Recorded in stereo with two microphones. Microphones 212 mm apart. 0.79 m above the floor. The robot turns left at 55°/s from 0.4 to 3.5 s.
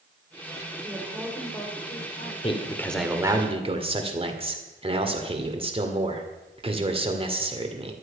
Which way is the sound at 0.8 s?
150° right.